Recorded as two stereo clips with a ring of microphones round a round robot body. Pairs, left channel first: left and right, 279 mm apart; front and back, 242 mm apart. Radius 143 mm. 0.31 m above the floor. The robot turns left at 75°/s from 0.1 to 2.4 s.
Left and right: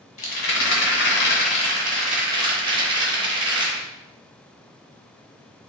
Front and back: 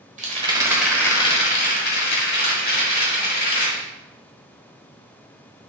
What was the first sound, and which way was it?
A rattle, 140° left.